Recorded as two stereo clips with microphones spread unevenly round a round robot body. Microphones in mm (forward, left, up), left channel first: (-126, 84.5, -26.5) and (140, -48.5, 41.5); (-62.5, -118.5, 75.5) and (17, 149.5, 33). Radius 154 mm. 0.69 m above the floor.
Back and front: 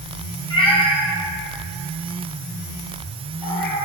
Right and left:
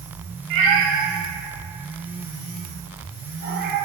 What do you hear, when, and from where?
0.5 s a cat meowing: 75° left, 3 m; by 3.9 s 135° left, 2.5 m